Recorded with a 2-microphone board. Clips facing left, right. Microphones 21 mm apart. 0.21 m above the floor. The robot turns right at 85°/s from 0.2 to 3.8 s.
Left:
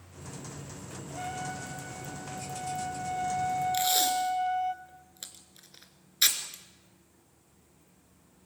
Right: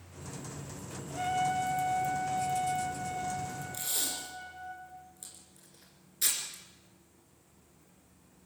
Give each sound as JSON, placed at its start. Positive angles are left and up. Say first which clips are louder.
{"t": 1.1, "sound": "a trumpet", "louder": "right 7 dB", "azimuth_deg": -165, "distance_m": 1.1}
{"t": 3.7, "sound": "tape being pulled", "louder": "left 9 dB", "side_deg": 60, "distance_m": 2.5}